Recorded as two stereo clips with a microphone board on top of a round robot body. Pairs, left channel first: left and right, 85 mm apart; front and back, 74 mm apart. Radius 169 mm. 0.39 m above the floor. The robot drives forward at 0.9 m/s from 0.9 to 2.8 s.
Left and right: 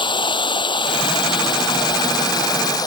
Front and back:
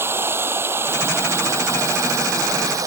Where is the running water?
120° left; by 2.9 s 135° left.